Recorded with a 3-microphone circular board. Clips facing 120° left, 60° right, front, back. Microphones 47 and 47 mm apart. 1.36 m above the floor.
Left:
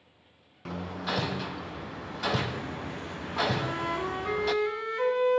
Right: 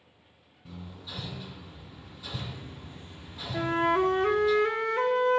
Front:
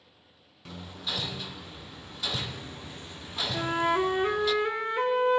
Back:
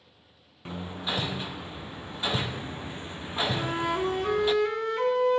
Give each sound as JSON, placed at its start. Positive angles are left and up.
{"t": 0.7, "sound": "hammering", "azimuth_deg": 120, "distance_m": 0.6}
{"t": 3.5, "sound": "a flute", "azimuth_deg": -65, "distance_m": 1.3}